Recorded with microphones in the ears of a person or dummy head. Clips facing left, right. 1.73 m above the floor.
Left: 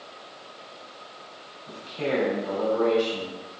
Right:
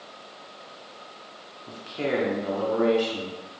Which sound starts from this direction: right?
A man speaking, at 1.7 s.